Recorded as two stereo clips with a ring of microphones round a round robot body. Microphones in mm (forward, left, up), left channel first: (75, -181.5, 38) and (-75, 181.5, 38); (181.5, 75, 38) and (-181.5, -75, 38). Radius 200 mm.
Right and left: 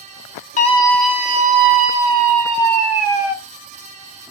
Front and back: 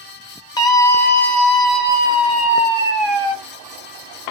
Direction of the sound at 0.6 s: 40° right.